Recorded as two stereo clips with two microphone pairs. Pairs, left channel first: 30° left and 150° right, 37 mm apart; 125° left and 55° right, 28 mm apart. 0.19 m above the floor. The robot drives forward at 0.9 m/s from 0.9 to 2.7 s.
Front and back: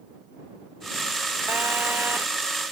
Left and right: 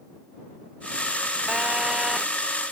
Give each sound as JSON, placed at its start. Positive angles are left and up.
{"t": 1.5, "sound": "a phone buzzing", "azimuth_deg": -115}